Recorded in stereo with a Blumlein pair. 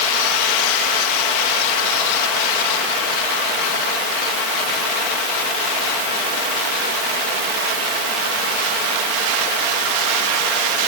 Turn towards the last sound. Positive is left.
No sound to turn to.